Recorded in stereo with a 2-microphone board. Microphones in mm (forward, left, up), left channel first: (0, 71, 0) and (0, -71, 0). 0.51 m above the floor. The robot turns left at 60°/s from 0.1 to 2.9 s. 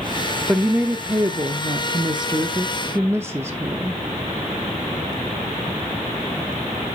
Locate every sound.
0.5 s a woman speaking: straight ahead, 0.7 m; by 4.0 s 145° right, 0.7 m